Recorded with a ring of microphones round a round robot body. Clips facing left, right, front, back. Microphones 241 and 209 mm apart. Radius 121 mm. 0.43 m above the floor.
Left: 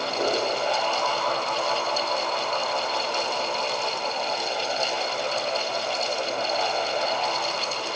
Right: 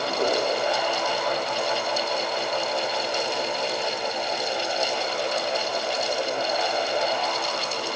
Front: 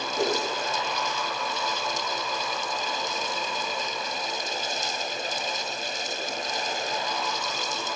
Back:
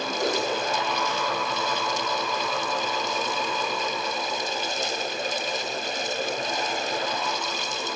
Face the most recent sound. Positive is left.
turn(degrees=20)